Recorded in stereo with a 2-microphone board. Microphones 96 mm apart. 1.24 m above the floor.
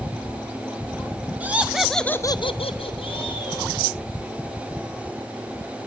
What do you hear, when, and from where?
1.4 s laughter: 20° right (ahead or behind), 1.6 m; by 3.7 s 55° left (ahead or behind), 2 m